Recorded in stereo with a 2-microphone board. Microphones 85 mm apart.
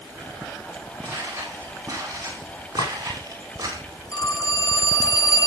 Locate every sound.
1.0 s footsteps: 25° right (ahead or behind), 8.5 m; by 3.8 s 40° right (ahead or behind), 9.5 m
2.8 s a clink: 80° left, 4.5 m
4.1 s a phone ringing: 40° left (ahead or behind), 2 m